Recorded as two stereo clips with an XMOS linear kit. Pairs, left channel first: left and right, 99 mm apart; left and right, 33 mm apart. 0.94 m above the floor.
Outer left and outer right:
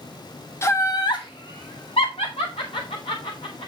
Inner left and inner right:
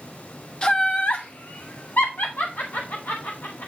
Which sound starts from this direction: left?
Laughter, at 0.6 s.